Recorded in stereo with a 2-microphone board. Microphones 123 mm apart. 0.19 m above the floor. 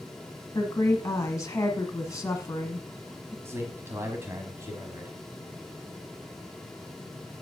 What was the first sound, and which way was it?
A woman speaking, 25° left (ahead or behind).